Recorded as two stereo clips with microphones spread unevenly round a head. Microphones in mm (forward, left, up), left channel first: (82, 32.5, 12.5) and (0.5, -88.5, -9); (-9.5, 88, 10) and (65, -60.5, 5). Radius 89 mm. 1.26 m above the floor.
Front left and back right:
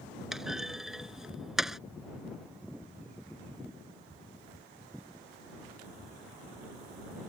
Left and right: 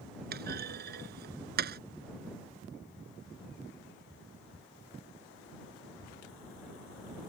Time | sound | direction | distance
0.3 | a clunk | 35° right | ?